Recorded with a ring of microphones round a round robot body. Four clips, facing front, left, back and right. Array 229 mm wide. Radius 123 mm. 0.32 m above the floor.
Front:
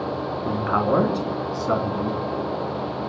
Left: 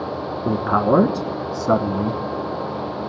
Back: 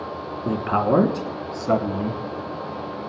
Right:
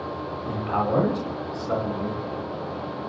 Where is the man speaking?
115° left, 3.5 m; by 2.2 s 110° left, 2.5 m.